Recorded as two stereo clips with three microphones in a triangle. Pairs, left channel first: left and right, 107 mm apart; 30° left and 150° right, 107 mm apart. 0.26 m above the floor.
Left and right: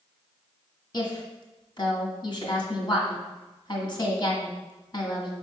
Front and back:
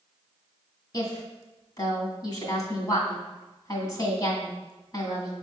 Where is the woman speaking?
65° left, 1.7 m.